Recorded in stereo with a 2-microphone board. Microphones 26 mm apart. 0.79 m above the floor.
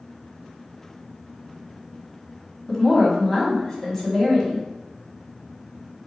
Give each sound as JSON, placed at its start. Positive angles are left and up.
{"t": 2.7, "sound": "a woman speaking", "side_deg": 15, "distance_m": 1.8}